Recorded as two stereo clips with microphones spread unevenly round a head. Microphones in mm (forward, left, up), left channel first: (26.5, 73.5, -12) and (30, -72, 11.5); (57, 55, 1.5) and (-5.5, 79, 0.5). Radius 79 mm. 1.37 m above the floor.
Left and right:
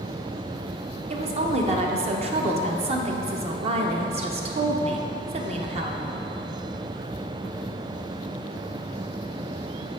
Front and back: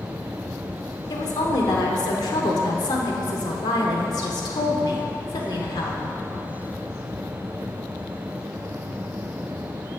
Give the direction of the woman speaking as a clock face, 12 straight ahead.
1 o'clock.